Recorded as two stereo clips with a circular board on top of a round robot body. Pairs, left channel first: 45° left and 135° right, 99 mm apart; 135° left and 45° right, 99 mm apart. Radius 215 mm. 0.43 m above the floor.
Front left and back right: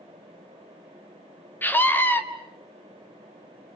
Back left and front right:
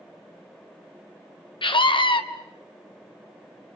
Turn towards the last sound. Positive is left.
turn(degrees=110)